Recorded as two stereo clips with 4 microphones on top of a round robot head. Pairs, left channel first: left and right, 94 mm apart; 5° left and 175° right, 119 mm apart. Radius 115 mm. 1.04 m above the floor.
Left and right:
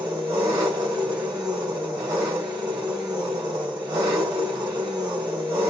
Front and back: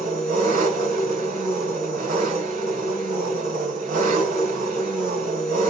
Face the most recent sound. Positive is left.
turn(degrees=-150)